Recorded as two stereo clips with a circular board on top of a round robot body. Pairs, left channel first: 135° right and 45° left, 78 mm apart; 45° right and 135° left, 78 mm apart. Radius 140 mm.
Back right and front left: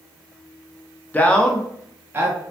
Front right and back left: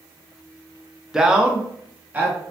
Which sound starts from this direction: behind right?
A man speaking, at 1.1 s.